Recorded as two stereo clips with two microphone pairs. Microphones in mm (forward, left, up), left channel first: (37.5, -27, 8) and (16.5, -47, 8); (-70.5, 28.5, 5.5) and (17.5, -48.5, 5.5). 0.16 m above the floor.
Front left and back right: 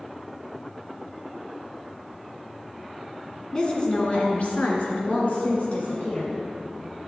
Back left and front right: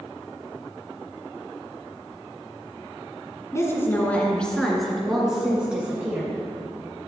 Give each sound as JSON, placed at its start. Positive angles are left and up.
{"t": 3.5, "sound": "a woman speaking", "azimuth_deg": 95, "distance_m": 2.0}